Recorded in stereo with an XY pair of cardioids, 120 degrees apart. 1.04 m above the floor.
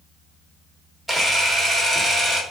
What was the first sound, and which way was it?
A camera shutter, 10° right.